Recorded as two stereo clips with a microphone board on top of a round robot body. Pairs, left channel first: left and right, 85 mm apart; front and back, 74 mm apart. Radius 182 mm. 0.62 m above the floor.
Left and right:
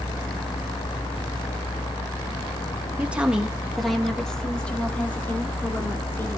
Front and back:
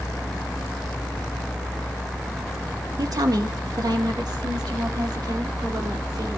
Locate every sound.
3.0 s a woman speaking: 160° right, 1.9 m; by 6.4 s 155° left, 4 m